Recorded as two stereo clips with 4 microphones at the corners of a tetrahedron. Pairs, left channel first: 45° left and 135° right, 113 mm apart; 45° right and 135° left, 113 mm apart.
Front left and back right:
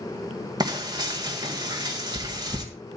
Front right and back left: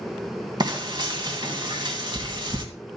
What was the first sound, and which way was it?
Frying, 175° left.